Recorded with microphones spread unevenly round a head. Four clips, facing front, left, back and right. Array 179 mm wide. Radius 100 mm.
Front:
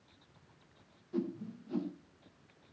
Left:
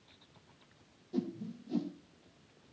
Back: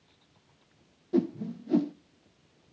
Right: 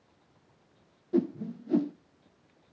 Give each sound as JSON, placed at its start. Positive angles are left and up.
{"t": 1.1, "sound": "a whoosh", "azimuth_deg": -135, "distance_m": 0.7}